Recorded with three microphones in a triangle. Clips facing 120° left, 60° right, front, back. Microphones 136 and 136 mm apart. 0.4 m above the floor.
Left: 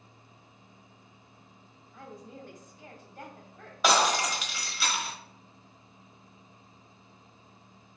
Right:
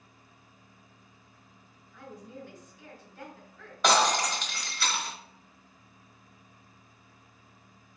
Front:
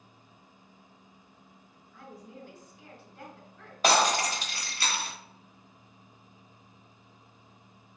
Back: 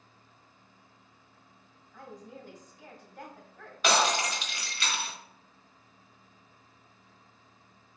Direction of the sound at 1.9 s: 145° left.